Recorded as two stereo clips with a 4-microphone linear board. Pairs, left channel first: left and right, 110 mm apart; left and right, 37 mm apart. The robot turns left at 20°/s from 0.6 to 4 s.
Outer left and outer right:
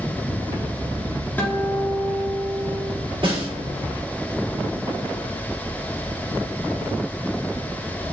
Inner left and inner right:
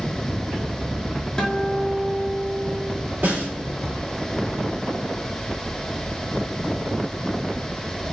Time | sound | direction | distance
1.4 | a guitar | 15° left | 1.5 m
3.2 | a snare drum | 50° right (ahead or behind) | 2.5 m